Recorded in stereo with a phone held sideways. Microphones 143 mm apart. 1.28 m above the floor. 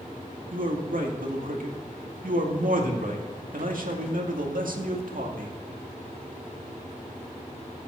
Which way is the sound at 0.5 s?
75° right (ahead or behind).